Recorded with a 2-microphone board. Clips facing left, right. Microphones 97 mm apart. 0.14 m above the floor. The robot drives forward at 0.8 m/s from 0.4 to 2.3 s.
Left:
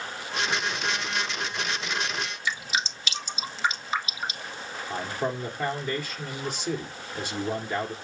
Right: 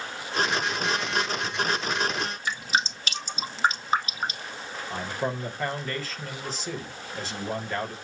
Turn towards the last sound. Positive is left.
turn(degrees=15)  # may be behind; listen again after turning